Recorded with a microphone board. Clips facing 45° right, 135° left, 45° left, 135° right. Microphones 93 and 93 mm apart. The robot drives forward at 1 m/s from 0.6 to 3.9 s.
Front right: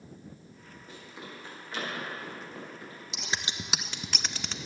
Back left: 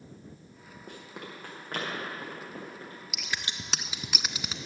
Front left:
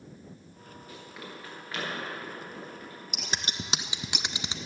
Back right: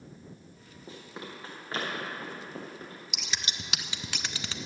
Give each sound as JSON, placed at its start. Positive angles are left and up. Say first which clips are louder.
{"t": 0.9, "sound": "running footsteps", "louder": "back left 2 dB, back right 2 dB", "azimuth_deg": 160, "distance_m": 4.5}
{"t": 3.1, "sound": "scissors", "louder": "front right 2 dB, front left 3 dB", "azimuth_deg": 10, "distance_m": 1.0}